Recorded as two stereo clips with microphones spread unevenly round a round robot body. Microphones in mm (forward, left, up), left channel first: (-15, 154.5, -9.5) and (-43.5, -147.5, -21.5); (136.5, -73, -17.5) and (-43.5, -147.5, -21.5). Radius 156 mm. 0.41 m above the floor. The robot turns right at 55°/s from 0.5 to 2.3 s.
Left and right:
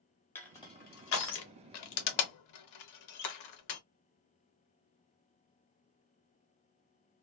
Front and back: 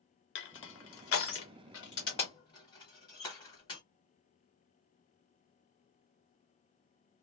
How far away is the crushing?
About 0.7 m.